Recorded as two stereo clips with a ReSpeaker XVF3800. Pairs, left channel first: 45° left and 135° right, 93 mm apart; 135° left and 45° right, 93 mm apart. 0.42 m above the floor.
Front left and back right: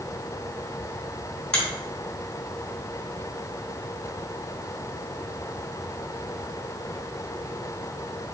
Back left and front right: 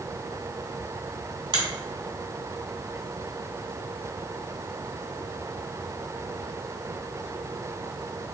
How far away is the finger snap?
About 1.8 m.